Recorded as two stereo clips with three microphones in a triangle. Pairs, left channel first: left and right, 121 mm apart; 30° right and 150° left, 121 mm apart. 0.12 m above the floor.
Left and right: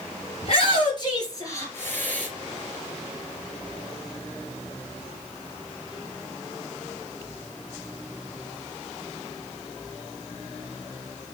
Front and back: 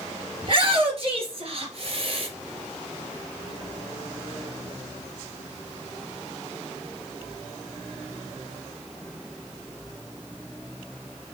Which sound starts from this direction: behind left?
A shout, at 0.4 s.